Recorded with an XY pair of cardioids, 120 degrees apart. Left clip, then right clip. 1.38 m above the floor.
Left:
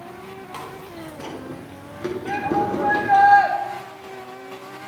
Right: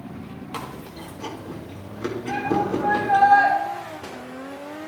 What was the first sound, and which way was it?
Chewing, 5° right.